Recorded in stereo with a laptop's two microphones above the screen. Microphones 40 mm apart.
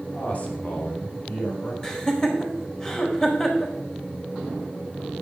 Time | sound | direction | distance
0.1 | a man speaking | 35° left (ahead or behind) | 2.5 m
1.8 | laughter | 20° left (ahead or behind) | 4 m